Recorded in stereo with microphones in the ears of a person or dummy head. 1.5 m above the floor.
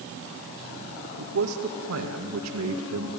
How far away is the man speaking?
About 1.9 m.